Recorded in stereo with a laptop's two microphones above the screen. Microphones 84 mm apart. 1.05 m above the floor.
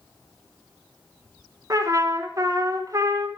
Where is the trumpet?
40° right (ahead or behind), 1.0 m.